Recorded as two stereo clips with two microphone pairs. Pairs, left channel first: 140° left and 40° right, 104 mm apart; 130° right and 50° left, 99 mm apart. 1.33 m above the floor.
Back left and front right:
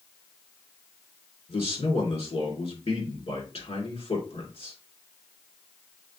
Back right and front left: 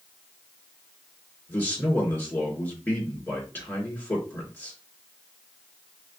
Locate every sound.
1.5 s a man speaking: 155° left, 3 m